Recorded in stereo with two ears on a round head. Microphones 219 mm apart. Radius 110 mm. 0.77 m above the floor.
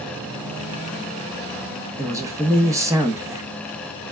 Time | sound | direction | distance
2.0 | a man speaking | 10° right (ahead or behind) | 0.6 m